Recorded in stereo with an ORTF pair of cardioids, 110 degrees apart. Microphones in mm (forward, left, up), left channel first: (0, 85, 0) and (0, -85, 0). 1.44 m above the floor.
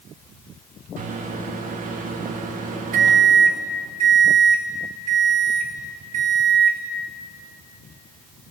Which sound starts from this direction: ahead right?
A microwave, at 1.0 s.